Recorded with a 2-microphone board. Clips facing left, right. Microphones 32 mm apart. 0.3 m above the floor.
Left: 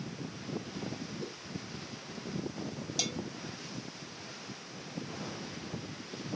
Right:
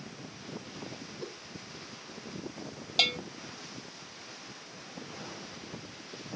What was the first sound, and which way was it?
A whoosh, 20° right (ahead or behind).